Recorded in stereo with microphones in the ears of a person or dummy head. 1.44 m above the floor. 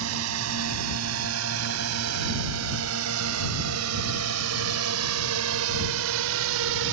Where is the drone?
75° right (ahead or behind); by 6.9 s 70° right (ahead or behind).